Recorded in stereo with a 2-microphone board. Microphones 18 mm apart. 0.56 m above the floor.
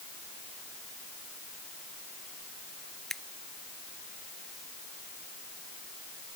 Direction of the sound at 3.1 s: 15° left (ahead or behind).